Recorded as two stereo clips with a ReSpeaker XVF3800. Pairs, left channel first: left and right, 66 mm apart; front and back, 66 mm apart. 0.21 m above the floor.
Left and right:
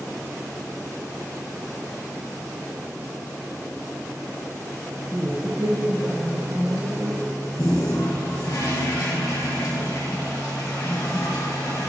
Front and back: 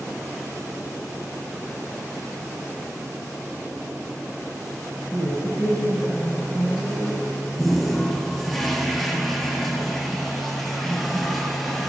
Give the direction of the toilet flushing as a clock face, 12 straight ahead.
9 o'clock.